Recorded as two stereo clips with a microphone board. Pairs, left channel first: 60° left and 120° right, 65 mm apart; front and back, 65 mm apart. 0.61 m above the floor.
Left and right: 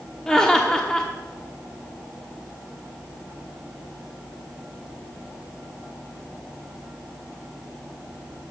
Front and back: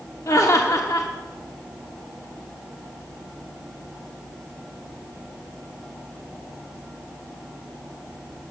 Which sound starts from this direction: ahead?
Laughter, at 0.3 s.